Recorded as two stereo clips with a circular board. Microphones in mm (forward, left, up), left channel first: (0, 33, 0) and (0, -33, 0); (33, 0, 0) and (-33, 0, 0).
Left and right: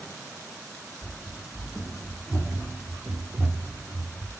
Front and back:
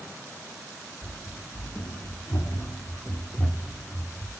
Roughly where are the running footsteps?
Ahead.